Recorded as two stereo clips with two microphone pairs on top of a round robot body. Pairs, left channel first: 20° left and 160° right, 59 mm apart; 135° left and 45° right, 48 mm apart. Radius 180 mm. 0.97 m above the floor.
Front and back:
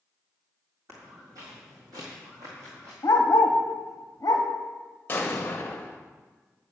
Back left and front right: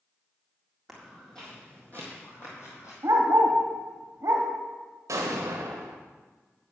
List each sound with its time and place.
0.9 s footsteps: 130° right, 1.9 m; by 2.9 s 160° left, 1.8 m
3.0 s a dog barking: 15° right, 0.7 m
5.1 s an explosion: 45° right, 0.8 m